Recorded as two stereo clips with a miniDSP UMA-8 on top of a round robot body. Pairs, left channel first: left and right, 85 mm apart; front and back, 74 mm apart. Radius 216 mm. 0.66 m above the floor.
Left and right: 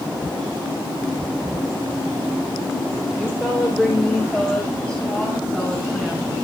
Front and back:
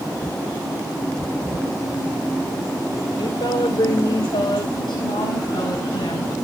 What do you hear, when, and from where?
3.2 s a woman speaking: 20° left, 3.5 m; by 6.3 s 15° left, 5.5 m